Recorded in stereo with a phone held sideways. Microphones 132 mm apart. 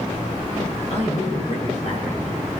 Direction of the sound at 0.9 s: 60° left (ahead or behind).